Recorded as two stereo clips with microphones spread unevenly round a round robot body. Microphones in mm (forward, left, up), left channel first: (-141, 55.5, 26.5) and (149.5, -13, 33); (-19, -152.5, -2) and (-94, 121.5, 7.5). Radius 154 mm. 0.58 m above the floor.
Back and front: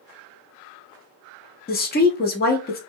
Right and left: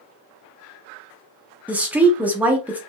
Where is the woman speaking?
170° right, 0.7 m.